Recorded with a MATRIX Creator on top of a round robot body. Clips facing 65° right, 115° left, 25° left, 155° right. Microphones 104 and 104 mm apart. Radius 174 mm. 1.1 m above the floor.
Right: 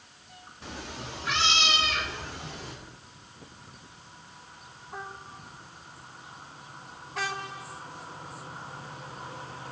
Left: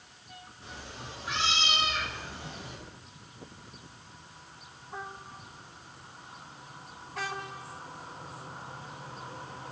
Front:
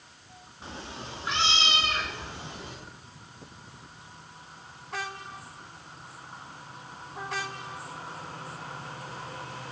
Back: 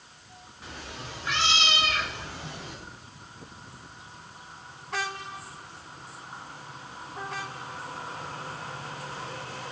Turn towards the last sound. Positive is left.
turn(degrees=-45)